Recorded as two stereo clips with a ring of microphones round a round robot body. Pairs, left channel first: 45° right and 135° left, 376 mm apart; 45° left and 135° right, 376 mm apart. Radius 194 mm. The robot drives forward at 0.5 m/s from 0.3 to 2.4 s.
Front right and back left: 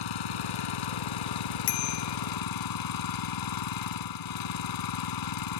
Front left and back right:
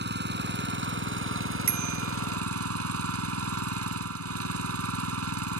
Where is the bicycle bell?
65° right; by 2.2 s 70° right.